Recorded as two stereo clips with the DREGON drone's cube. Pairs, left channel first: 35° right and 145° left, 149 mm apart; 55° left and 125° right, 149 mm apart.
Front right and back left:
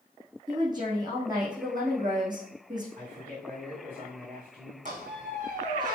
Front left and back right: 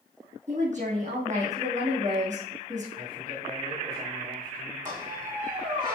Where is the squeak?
175° left, 3 m.